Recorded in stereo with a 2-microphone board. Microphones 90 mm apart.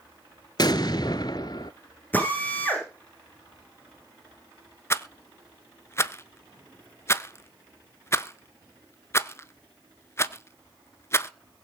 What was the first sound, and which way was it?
An explosion, 50° left (ahead or behind).